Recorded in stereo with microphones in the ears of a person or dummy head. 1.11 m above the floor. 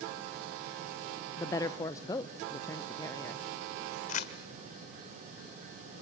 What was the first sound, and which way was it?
A woman speaking, 15° left (ahead or behind).